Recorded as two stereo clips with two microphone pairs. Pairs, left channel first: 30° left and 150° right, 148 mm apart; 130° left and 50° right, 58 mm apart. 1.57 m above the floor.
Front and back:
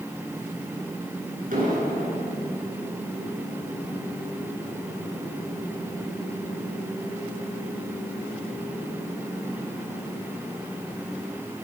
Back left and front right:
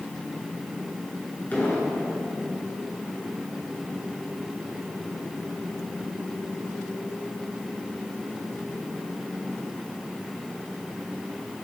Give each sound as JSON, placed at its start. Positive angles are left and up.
{"t": 1.5, "sound": "an explosion", "azimuth_deg": -170, "distance_m": 7.5}